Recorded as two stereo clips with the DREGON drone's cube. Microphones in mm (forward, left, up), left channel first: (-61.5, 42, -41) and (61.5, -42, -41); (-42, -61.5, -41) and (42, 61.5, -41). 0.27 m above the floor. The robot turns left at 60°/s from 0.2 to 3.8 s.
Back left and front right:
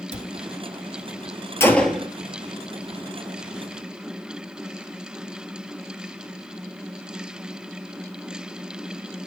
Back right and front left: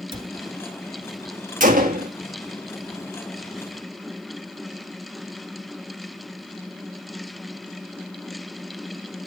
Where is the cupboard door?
Straight ahead, 1.1 m; by 0.3 s 10° right, 1.1 m.